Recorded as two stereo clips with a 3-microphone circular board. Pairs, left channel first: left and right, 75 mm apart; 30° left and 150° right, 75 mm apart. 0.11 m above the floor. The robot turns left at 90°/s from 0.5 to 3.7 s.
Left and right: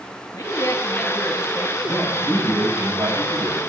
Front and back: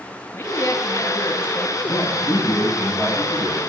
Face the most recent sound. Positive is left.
turn(degrees=-120)